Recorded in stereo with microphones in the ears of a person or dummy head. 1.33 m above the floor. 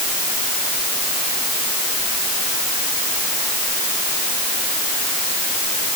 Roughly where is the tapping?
I don't hear tapping.